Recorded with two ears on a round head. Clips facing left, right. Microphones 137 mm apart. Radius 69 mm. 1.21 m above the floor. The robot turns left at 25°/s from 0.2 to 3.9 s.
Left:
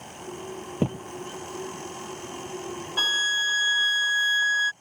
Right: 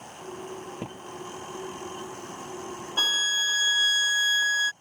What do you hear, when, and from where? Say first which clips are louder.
0.8 s a thud: left 11 dB; 45° left (ahead or behind); by 1.1 s 40° left (ahead or behind)
3.0 s a violin: left 2 dB; 5° right (ahead or behind); by 4.7 s 15° right (ahead or behind)